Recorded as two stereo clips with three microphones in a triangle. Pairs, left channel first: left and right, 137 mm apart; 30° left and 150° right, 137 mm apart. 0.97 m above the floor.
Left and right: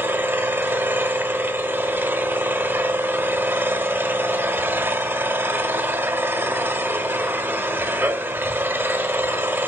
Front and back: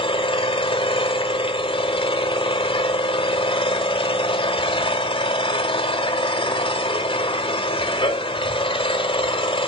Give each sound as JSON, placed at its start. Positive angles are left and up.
{"t": 0.0, "sound": "an engine running", "azimuth_deg": -15, "distance_m": 1.3}